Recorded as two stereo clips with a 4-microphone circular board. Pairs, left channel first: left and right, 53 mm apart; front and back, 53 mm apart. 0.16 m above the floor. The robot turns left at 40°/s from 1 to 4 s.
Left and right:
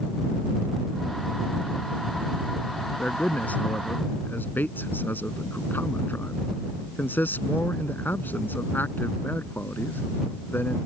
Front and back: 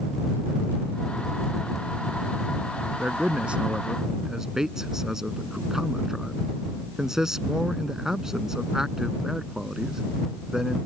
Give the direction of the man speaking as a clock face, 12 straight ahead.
7 o'clock.